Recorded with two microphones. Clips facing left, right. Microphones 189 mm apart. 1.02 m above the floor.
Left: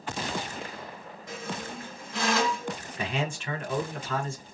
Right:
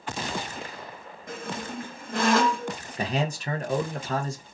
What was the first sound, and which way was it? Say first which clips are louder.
A squeak: right 2 dB; 55° right (ahead or behind).